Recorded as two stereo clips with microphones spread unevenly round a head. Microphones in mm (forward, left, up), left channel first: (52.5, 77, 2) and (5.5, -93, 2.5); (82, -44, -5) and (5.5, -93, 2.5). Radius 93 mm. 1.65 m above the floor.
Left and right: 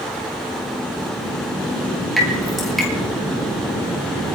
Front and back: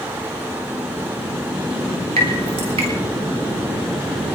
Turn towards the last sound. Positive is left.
turn(degrees=165)